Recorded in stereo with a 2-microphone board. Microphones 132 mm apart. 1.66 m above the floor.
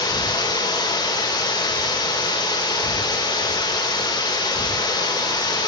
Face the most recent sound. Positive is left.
turn(degrees=30)  # may be behind; listen again after turning